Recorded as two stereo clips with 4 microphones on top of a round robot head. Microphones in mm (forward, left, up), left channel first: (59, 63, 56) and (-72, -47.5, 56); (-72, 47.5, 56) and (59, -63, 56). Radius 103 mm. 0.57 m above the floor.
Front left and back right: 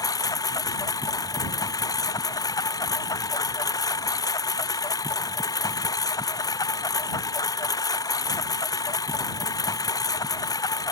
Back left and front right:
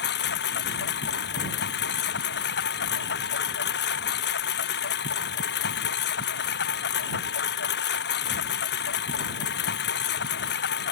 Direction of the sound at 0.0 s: 110° left.